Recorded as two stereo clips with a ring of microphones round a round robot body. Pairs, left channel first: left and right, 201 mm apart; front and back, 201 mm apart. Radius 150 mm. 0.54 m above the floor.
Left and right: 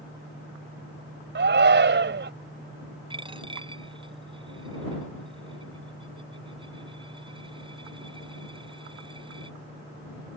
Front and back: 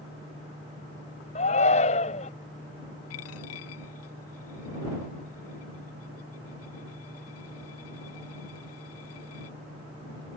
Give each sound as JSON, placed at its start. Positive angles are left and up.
{"t": 1.4, "sound": "a shout", "azimuth_deg": -65}
{"t": 3.1, "sound": "a dropped coin", "azimuth_deg": -25}